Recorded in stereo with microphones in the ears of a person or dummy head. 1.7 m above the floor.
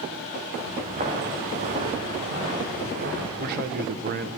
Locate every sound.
0.5 s footsteps: 40° right (ahead or behind), 6 m; by 3.3 s 50° right (ahead or behind), 6.5 m
3.4 s a man speaking: 55° right (ahead or behind), 1.2 m